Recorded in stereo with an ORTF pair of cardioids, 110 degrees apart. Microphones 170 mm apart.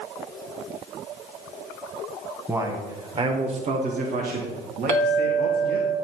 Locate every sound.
2.5 s a man speaking: 15° right, 1.6 m; by 5.9 s 80° right, 2.5 m
4.9 s a clink: 45° right, 1.8 m